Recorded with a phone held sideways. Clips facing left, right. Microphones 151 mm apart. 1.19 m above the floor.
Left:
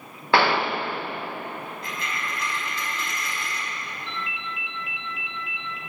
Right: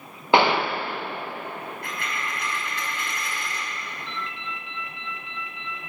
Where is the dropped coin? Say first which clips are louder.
Even; 60° right (ahead or behind), 4 m.